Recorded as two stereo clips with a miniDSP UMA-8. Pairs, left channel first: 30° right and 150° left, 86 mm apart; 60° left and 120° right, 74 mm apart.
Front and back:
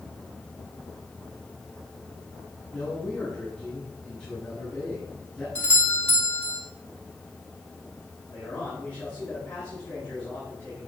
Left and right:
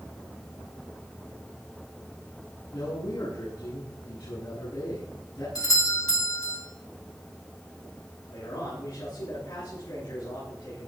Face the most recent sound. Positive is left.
turn(degrees=45)